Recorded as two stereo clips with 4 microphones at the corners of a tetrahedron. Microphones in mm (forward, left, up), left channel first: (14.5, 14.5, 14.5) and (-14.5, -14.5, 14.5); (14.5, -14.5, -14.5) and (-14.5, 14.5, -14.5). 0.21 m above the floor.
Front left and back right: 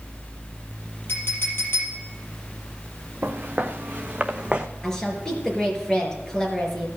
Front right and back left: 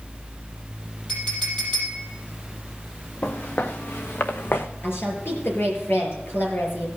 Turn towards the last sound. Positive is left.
turn(degrees=-30)